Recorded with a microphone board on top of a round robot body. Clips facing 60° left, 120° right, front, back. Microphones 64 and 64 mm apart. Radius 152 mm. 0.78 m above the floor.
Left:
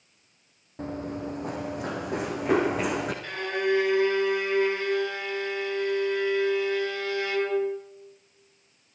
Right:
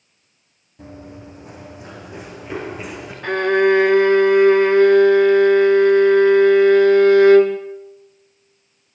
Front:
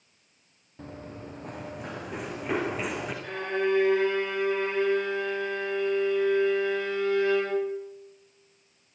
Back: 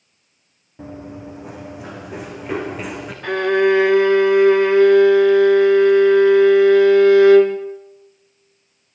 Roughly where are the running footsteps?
Left.